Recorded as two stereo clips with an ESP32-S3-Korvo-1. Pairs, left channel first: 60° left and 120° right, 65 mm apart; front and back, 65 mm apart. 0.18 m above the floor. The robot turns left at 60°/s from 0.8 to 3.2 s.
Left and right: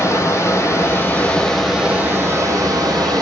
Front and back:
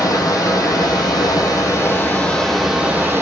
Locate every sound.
0.0 s running water: 20° left, 1.9 m; by 3.2 s 125° right, 1.9 m